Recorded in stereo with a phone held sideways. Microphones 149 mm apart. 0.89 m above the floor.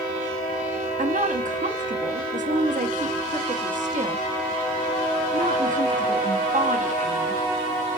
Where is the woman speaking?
60° right (ahead or behind), 1.3 m.